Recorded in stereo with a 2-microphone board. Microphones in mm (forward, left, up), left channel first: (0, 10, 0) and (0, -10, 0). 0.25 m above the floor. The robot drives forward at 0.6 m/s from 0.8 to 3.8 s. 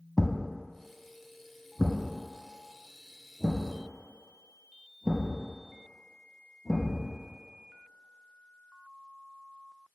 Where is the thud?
Centre (ahead or behind), 0.7 m.